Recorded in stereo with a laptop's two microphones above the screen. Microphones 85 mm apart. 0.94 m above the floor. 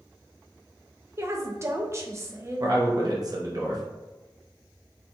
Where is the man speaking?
45° right (ahead or behind), 0.7 m.